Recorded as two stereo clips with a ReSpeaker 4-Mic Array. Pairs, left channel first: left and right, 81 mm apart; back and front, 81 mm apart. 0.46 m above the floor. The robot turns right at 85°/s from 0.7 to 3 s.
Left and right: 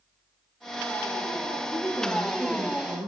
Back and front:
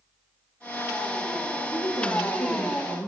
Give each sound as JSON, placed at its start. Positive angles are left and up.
{"t": 1.7, "sound": "a woman speaking", "azimuth_deg": 135, "distance_m": 6.5}